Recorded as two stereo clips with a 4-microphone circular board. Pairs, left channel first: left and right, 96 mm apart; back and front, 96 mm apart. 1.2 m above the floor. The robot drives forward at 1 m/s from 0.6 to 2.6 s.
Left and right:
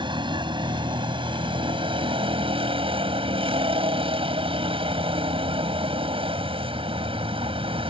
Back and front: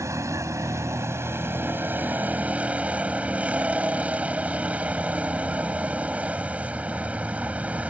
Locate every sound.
0.0 s a vehicle: 60° right; by 7.9 s 75° right